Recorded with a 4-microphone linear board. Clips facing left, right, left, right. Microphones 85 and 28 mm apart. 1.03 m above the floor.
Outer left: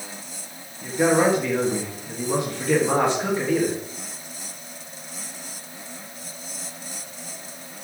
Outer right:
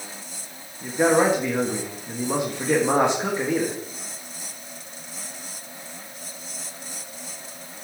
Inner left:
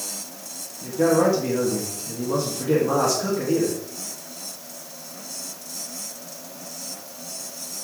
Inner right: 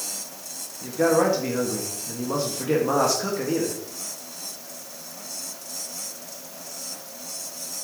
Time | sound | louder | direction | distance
0.8 | a man speaking | even, inner left 1 dB | 20° right (ahead or behind) | 1.6 m